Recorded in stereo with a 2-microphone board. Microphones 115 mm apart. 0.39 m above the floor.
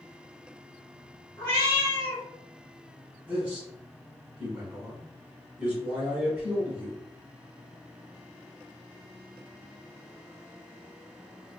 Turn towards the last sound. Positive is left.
turn(degrees=-10)  # may be behind; listen again after turning